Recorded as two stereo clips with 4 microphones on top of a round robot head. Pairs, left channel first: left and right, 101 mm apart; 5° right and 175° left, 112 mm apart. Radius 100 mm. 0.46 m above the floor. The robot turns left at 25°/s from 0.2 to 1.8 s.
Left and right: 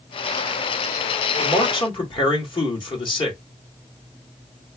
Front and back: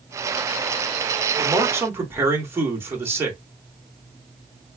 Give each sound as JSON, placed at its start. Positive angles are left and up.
{"t": 1.4, "sound": "a man speaking", "azimuth_deg": 120, "distance_m": 1.9}